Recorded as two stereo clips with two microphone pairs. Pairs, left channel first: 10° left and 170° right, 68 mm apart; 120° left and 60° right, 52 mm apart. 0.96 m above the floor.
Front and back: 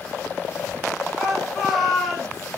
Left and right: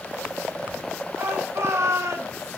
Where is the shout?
90° right, 4.5 m; by 2.5 s 75° right, 4.5 m.